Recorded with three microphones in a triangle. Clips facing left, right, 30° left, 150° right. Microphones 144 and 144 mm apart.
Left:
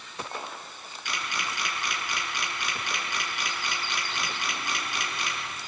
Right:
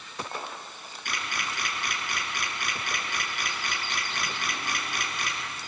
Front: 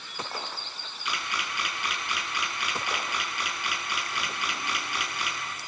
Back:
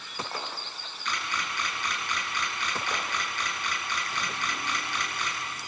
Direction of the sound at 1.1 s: 50° right.